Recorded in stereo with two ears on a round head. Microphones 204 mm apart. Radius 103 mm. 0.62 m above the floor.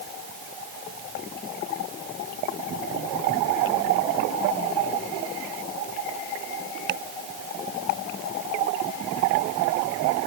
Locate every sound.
Only background noise.